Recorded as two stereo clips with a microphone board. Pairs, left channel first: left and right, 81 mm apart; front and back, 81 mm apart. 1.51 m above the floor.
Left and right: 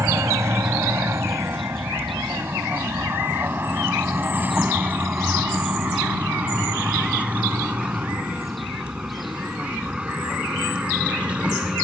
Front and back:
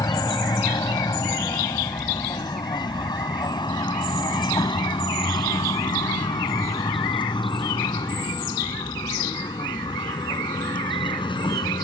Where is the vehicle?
35° right; by 11.8 s 15° right.